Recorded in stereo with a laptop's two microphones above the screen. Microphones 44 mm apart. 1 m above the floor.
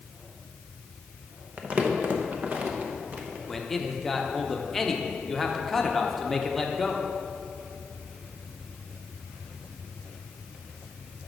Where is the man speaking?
5° left (ahead or behind), 0.8 m.